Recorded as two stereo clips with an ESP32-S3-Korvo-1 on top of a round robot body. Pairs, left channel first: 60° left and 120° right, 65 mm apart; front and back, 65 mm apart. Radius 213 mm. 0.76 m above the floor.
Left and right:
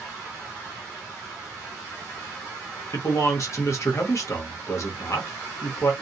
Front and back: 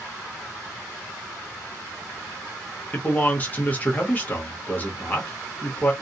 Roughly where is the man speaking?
Ahead left.